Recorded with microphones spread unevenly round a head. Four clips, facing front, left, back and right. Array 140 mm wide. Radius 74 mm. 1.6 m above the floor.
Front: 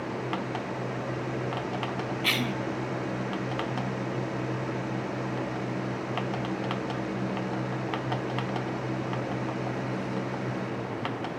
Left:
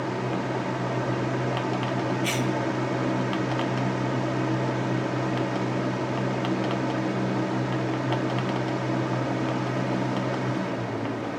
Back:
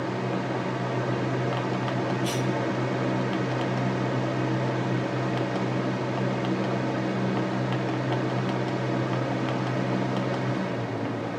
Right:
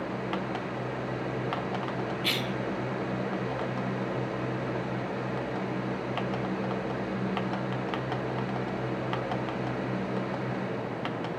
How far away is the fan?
About 2.5 m.